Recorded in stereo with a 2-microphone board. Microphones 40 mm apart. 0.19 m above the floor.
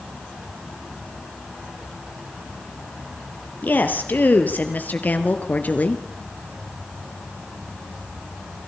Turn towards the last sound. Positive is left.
turn(degrees=45)  # may be behind; listen again after turning